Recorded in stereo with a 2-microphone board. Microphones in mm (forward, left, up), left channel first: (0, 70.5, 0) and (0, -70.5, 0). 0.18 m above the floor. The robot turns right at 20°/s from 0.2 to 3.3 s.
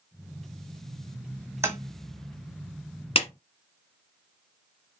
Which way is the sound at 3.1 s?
45° left (ahead or behind).